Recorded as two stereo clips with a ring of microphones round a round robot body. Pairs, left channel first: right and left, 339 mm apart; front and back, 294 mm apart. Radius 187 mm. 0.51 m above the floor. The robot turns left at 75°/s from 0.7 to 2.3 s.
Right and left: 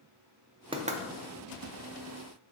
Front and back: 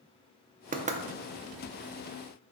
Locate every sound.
0.7 s knocking: 150° left, 0.6 m; by 1.0 s 130° left, 0.6 m